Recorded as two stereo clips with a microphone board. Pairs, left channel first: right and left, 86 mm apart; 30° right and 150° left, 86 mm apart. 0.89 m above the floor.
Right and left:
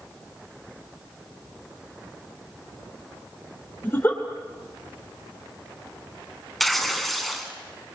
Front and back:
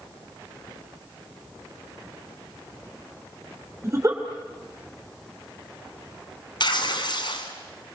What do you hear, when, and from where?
3.8 s a giggle: 155° right, 3.5 m
6.6 s tearing paper: straight ahead, 2.5 m